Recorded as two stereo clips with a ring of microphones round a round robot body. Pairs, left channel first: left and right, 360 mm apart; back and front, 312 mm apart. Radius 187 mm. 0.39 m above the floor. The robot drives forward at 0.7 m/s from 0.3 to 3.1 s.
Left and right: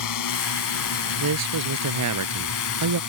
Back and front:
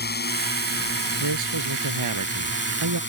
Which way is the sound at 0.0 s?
125° left.